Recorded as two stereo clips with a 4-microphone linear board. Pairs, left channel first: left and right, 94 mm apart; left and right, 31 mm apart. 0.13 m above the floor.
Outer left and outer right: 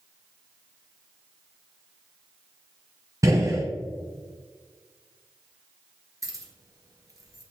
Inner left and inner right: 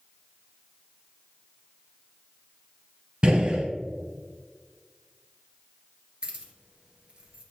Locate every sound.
3.2 s a gunshot: 35° right (ahead or behind), 1.5 m
6.2 s keys jangling: 35° right (ahead or behind), 1.4 m